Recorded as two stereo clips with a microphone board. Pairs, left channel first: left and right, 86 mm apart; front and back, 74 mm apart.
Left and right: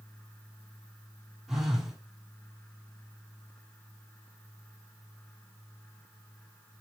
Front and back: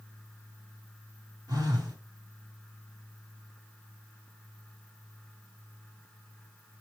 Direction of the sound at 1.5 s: 175° right.